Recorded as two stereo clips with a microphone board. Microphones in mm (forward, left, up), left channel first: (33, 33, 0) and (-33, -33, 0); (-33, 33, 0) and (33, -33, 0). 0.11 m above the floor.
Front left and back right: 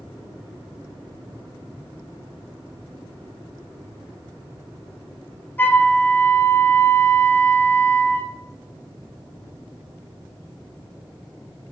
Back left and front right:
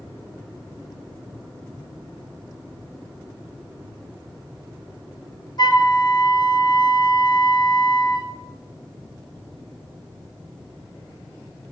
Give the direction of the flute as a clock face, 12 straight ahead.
8 o'clock.